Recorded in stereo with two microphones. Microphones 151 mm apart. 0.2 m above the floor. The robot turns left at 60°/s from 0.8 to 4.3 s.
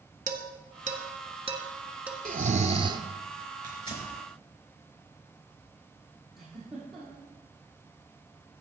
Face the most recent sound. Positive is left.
turn(degrees=0)  # may be behind; listen again after turning